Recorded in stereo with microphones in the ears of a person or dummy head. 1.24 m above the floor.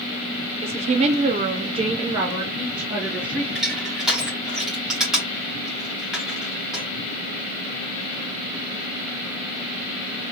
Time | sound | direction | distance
0.6 | a woman speaking | 30° right (ahead or behind) | 0.7 m
3.5 | crushing | 5° right (ahead or behind) | 1.5 m